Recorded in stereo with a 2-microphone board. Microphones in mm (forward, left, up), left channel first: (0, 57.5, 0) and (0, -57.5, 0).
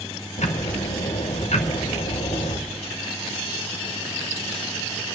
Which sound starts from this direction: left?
Ticking, at 0.4 s.